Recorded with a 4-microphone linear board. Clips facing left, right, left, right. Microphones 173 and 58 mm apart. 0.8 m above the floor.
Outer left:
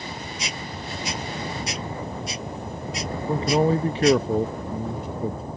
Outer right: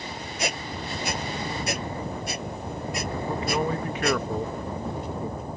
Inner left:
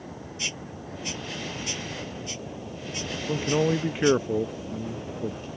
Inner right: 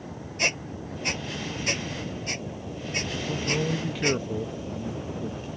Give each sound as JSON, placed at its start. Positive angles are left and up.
{"t": 0.4, "sound": "a squeak", "side_deg": -55}
{"t": 3.3, "sound": "a man speaking", "side_deg": 30}